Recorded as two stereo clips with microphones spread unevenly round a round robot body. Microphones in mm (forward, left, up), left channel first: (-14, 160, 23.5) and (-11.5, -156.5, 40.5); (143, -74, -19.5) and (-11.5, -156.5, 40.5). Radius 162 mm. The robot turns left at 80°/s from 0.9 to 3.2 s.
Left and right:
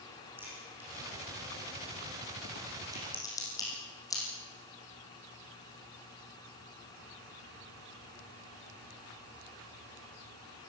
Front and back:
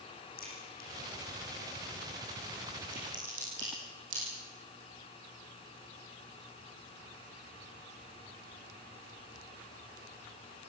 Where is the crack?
5° right, 8 m; by 4.2 s 170° left, 8 m.